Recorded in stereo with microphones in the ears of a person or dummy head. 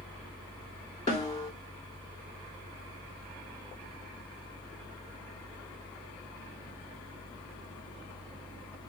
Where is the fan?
25° left (ahead or behind), 0.8 m.